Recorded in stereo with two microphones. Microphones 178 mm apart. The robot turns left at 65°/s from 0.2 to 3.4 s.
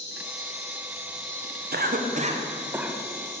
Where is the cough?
60° right (ahead or behind), 0.5 m; by 3.4 s 25° left (ahead or behind), 0.5 m.